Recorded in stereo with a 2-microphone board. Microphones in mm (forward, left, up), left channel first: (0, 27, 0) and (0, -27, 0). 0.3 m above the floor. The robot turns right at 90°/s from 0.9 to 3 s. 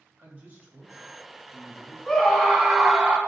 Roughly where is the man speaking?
Ahead right.